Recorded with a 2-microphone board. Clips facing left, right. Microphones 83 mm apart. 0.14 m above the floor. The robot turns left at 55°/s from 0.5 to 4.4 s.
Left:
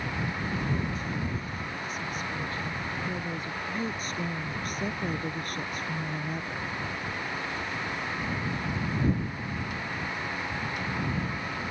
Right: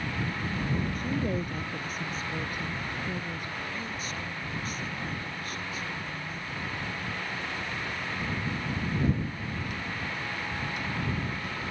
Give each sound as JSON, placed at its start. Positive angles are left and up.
{"t": 0.9, "sound": "a woman speaking", "azimuth_deg": -70}